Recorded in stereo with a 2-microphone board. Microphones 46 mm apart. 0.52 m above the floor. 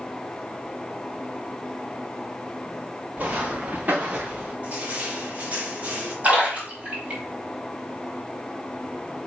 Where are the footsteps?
35° right (ahead or behind), 3 m; by 4.5 s 30° right (ahead or behind), 1.9 m.